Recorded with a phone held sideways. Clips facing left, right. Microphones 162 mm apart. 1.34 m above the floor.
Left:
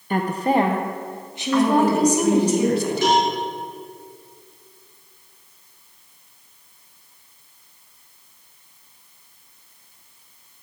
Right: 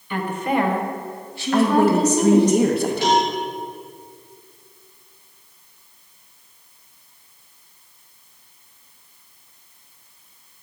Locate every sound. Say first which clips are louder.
0.1 s a woman speaking: left 3 dB; 45° left (ahead or behind), 0.7 m; by 2.5 s 10° left (ahead or behind), 1.8 m
1.5 s a woman speaking: right 1 dB; 55° right (ahead or behind), 2.0 m
3.0 s a cowbell: even; 50° left (ahead or behind), 3.5 m